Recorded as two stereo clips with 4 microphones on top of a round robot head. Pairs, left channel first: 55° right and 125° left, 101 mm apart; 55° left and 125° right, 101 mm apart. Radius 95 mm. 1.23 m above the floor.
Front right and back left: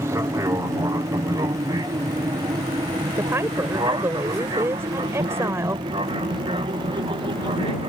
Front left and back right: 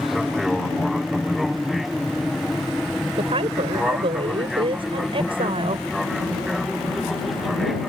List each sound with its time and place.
0.0 s an aircraft: 145° left
3.2 s a woman speaking: 165° right